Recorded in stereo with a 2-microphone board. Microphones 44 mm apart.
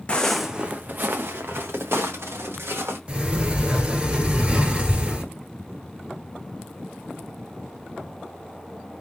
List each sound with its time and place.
0.1 s footsteps: 25° left (ahead or behind), 0.5 m; by 3.0 s 80° right, 2 m
3.1 s a sliding door: 25° right (ahead or behind), 1.3 m